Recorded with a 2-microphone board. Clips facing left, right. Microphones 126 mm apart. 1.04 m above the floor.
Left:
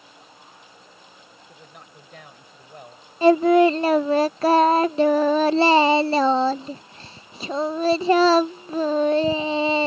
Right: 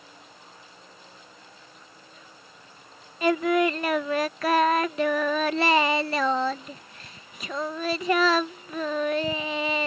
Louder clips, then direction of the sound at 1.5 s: Left 4 dB; 80° left.